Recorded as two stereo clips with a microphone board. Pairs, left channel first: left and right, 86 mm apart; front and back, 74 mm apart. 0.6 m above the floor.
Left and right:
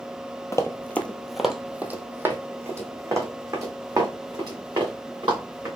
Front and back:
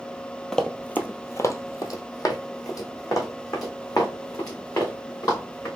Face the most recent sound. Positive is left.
turn(degrees=-40)